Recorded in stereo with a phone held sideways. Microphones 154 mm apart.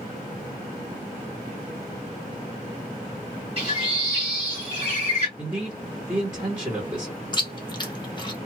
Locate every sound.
3.6 s a bird: 40° right (ahead or behind), 1.9 m
5.4 s a man speaking: 15° right (ahead or behind), 1.3 m
7.3 s chewing: 30° left (ahead or behind), 0.8 m